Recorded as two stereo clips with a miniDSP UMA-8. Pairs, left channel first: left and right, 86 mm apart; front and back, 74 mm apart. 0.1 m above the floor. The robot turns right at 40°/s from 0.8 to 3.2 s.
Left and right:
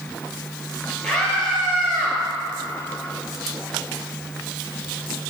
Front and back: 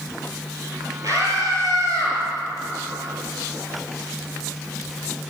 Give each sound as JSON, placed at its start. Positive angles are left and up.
{"t": 1.0, "sound": "a scream", "azimuth_deg": 150, "distance_m": 2.5}